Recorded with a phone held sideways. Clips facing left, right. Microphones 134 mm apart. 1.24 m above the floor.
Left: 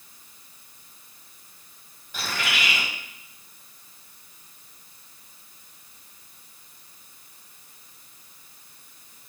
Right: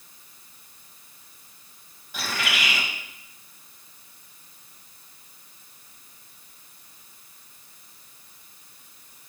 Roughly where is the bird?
Centre.